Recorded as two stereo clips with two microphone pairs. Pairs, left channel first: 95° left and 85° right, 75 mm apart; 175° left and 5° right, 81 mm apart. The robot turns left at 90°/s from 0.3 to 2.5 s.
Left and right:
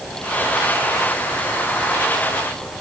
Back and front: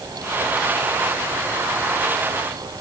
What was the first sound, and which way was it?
Only background noise.